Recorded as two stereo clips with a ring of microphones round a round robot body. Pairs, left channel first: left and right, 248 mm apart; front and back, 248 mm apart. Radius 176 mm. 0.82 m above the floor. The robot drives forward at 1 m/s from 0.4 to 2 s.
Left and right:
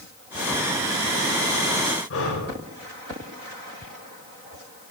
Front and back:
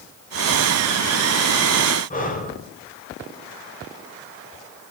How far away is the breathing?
About 3.5 m.